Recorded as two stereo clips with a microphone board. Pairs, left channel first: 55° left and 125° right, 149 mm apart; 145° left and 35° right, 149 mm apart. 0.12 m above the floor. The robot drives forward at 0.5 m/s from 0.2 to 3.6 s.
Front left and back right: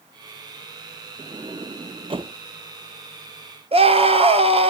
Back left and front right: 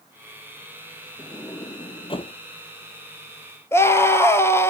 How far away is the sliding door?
About 0.8 m.